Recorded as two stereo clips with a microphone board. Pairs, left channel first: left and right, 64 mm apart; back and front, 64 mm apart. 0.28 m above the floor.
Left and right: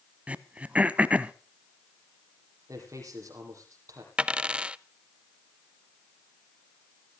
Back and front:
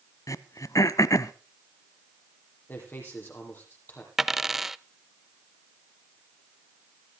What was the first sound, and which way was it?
Throat clearing, 155° right.